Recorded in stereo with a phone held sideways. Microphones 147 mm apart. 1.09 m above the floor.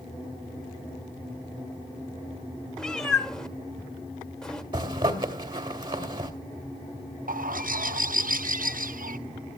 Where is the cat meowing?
5° left (ahead or behind), 1.2 m.